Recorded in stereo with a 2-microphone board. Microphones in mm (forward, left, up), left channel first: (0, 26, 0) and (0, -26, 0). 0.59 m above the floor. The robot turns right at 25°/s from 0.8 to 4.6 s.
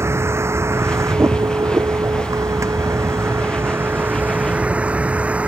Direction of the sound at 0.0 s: 125° right.